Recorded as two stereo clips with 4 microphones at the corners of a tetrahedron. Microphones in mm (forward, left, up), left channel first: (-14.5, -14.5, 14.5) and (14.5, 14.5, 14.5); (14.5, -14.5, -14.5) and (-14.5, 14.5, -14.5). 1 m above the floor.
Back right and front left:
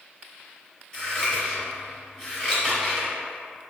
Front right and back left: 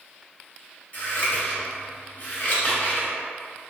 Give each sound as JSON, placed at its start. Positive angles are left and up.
{"t": 0.9, "sound": "scissors", "azimuth_deg": -65, "distance_m": 1.3}